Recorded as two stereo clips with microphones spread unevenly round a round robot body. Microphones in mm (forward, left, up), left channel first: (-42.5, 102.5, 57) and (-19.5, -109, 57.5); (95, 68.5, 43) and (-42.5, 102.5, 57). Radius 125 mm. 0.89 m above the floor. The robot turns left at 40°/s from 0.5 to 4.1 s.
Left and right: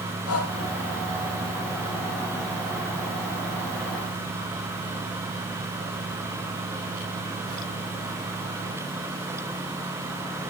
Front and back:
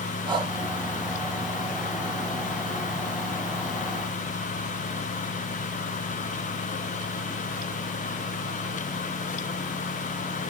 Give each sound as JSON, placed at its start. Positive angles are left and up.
{"t": 0.3, "sound": "breathing", "azimuth_deg": 115, "distance_m": 5.0}